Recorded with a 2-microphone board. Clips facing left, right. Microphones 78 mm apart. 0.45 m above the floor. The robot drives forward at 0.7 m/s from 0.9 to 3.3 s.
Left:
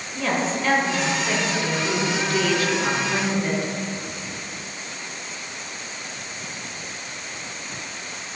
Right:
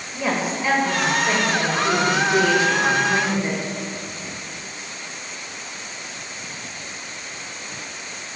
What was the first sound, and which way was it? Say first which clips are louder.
A woman speaking: even; 15° right (ahead or behind).